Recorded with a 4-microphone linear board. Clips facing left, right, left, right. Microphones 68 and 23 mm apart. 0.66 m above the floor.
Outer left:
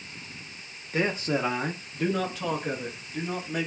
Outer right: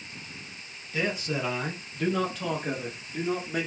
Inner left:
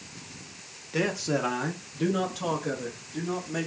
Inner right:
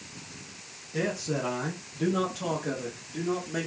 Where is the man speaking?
40° left (ahead or behind), 0.7 m; by 3.7 s 20° right (ahead or behind), 1.3 m.